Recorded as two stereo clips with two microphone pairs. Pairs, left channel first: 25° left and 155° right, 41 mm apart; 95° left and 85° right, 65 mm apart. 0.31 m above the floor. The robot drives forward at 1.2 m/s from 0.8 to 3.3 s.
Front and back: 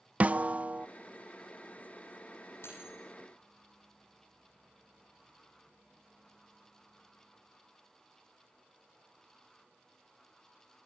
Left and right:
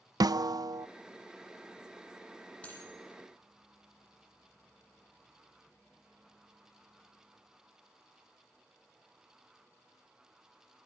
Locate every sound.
0.2 s a snare drum: 100° right, 0.5 m; by 0.9 s 110° right, 0.5 m
2.6 s cutlery clinking: 25° left, 9.5 m